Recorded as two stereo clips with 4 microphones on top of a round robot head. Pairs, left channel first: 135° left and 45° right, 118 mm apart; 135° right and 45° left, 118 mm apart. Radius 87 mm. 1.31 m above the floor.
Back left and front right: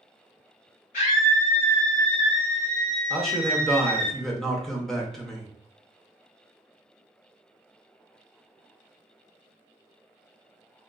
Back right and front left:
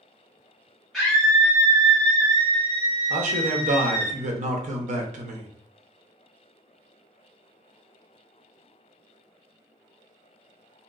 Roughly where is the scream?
Behind left.